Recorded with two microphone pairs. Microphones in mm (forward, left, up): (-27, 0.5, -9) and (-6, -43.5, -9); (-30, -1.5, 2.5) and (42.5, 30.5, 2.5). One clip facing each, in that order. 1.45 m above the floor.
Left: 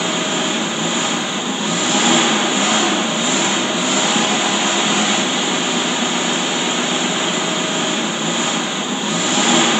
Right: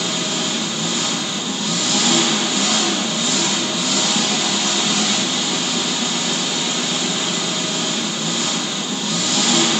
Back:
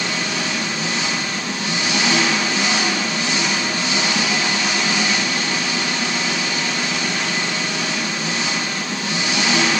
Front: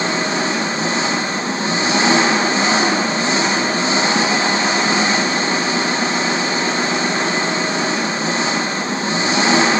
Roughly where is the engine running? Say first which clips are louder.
Left 4 dB, front 5 dB; ahead left.